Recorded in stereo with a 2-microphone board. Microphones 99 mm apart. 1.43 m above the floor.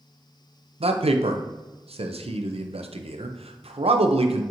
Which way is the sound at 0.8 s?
80° right.